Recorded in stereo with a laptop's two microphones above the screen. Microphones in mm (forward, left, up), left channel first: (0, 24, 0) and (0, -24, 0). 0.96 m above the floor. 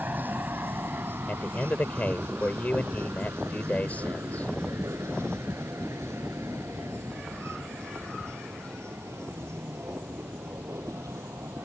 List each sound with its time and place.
0.0 s a vehicle: 40° right (ahead or behind); by 11.7 s 75° right (ahead or behind)
1.3 s a man speaking: 35° left (ahead or behind)